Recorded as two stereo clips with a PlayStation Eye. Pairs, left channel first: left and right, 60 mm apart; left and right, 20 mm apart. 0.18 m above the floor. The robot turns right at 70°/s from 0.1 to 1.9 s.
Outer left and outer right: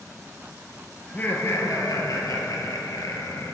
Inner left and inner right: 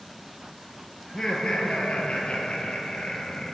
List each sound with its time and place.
1.0 s laughter: 20° left, 3 m; by 3.5 s 80° left, 3 m